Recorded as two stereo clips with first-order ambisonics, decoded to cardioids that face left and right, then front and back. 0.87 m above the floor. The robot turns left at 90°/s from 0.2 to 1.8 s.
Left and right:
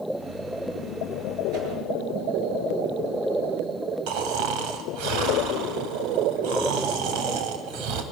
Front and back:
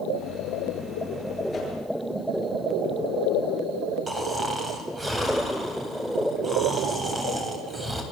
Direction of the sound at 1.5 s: 65° right.